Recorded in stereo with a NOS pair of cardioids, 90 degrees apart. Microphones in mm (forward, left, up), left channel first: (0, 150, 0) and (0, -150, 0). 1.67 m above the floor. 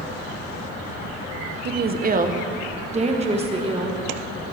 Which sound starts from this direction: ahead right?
A woman speaking, at 1.6 s.